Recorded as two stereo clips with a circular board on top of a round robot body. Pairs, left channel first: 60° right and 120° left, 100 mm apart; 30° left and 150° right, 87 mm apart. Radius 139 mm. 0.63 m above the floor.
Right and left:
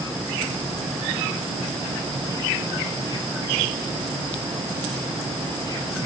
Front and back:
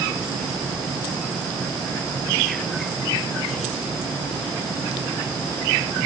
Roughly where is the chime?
No chime in this recording.